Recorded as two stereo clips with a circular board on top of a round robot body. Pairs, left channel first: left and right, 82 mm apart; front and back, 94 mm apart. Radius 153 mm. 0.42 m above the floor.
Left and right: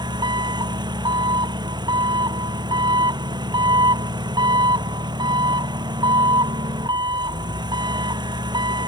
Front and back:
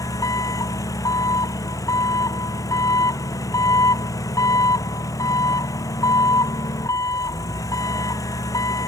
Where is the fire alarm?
No fire alarm in this recording.